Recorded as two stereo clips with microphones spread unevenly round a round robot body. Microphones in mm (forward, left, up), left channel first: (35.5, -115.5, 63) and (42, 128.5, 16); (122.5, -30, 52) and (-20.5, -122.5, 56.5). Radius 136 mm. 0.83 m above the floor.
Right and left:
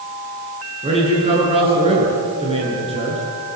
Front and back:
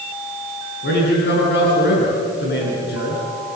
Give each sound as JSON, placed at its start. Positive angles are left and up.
{"t": 0.8, "sound": "a man speaking", "azimuth_deg": 20, "distance_m": 9.5}